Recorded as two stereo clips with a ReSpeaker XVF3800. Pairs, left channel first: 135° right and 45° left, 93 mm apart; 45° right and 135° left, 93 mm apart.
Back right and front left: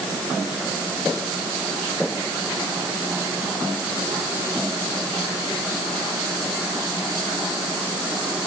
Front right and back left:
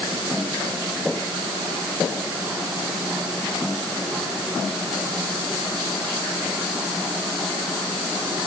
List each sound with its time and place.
Only background noise.